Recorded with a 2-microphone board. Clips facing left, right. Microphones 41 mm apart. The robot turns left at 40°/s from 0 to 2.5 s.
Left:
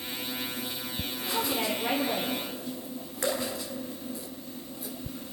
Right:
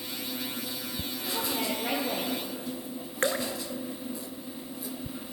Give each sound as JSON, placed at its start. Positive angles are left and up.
{"t": 1.3, "sound": "a woman speaking", "azimuth_deg": 25, "distance_m": 7.5}
{"t": 3.2, "sound": "dripping", "side_deg": -40, "distance_m": 3.0}